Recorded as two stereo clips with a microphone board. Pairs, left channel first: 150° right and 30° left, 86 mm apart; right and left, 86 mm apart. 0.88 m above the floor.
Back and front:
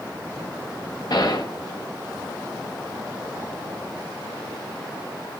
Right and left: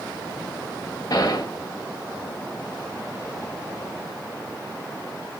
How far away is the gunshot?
About 0.7 m.